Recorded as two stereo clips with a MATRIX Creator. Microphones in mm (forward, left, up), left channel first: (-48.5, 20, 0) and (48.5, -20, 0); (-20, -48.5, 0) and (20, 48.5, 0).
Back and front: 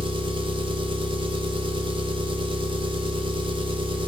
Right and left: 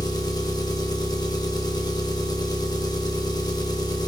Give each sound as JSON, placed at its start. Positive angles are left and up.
{"t": 0.0, "sound": "an engine running", "azimuth_deg": -60, "distance_m": 1.2}